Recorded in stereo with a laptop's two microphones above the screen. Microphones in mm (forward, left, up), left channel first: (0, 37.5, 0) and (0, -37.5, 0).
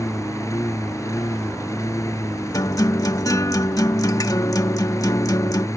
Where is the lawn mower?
45° left (ahead or behind).